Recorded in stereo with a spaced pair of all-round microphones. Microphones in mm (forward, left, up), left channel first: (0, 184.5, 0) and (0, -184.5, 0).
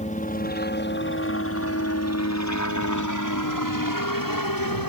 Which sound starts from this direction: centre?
A helicopter, at 0.0 s.